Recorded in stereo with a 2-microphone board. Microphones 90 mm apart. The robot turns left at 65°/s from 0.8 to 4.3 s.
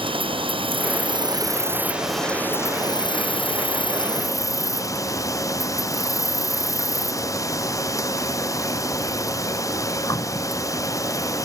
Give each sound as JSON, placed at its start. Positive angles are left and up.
{"t": 0.0, "sound": "an insect", "azimuth_deg": -95}